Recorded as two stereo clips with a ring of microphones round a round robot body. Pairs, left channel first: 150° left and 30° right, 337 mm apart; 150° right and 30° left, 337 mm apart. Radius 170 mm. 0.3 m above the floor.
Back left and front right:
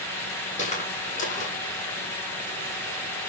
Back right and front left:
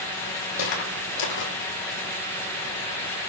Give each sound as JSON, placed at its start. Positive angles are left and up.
{"t": 0.6, "sound": "footsteps", "azimuth_deg": -140, "distance_m": 7.0}